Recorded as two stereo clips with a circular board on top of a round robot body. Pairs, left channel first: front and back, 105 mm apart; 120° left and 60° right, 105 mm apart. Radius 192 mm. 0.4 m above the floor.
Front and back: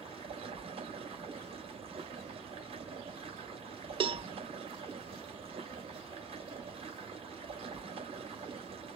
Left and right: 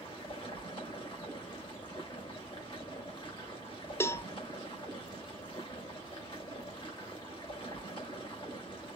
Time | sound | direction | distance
0.0 | running water | 155° left | 2.5 m
4.0 | a cowbell | 175° right | 0.6 m